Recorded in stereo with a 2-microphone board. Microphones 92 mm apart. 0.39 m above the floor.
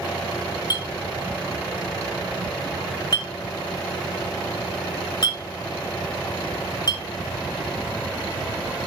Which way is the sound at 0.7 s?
50° left (ahead or behind).